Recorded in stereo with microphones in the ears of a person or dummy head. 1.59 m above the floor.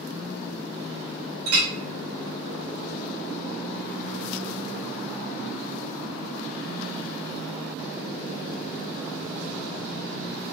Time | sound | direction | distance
1.5 | a clink | 55° right (ahead or behind) | 0.9 m